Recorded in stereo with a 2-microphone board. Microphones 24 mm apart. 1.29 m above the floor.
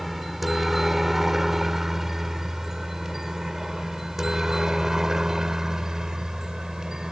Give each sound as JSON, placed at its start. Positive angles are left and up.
{"t": 0.0, "sound": "a helicopter", "side_deg": -5}